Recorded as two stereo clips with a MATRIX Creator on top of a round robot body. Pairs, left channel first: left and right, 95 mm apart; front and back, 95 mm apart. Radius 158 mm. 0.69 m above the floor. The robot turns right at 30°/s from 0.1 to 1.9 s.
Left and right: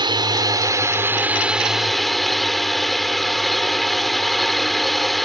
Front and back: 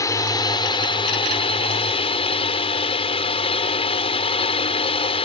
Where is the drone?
55° right; by 5.3 s straight ahead.